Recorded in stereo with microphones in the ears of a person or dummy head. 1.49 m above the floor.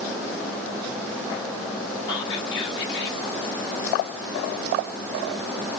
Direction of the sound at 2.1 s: 25° left (ahead or behind).